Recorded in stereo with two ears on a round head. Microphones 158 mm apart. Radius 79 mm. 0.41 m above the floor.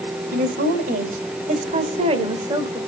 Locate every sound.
0.3 s a woman speaking: 55° right (ahead or behind), 2.5 m; by 2.8 s 20° right (ahead or behind), 1.8 m